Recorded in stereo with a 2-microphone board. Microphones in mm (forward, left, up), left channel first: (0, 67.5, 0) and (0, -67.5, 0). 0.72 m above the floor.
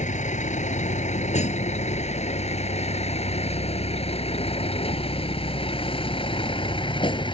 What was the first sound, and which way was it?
A vehicle, 65° left (ahead or behind).